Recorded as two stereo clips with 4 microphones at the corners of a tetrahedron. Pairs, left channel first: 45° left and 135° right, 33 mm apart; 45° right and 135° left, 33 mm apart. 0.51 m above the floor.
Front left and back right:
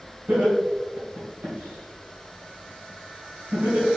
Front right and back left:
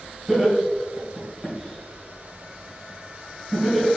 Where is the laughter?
145° right, 2.5 m.